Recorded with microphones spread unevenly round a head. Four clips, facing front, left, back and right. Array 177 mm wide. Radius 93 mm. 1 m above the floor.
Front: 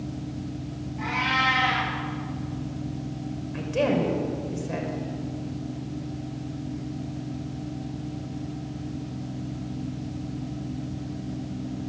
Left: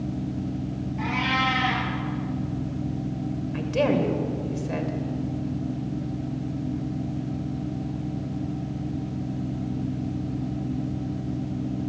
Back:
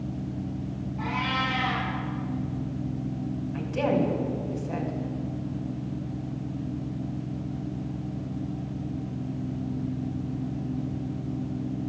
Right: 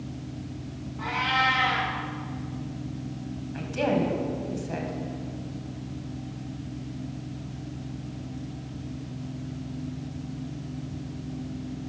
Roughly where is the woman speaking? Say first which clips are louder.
Left 3 dB, front 2 dB; ahead left.